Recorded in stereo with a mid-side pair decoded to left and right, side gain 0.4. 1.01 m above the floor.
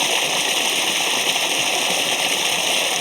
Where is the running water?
10° left.